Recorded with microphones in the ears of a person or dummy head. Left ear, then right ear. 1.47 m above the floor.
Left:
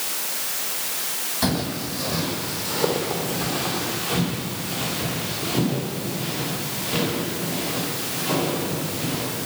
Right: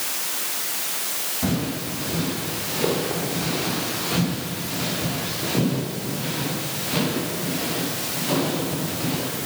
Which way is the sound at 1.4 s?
55° left (ahead or behind).